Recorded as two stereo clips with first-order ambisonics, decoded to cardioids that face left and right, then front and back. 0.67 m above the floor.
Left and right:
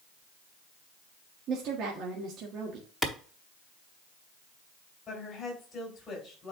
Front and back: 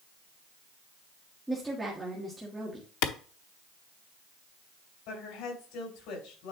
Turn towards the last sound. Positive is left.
turn(degrees=20)